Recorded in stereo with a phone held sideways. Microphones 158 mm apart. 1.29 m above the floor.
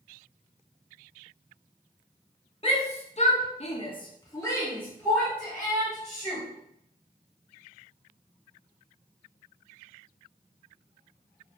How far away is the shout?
About 0.9 m.